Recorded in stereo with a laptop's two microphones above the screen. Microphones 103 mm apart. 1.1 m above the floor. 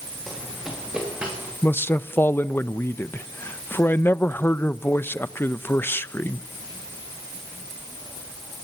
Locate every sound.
0.3 s running footsteps: centre (ahead or behind), 5.5 m; by 1.5 s 15° right (ahead or behind), 5 m
1.6 s a man speaking: 20° left (ahead or behind), 0.8 m